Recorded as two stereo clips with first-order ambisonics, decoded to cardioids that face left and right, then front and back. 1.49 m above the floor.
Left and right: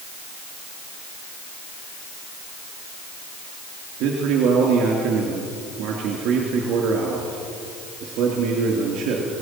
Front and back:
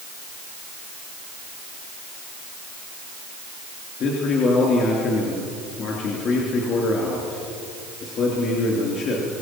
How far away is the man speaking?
About 3 m.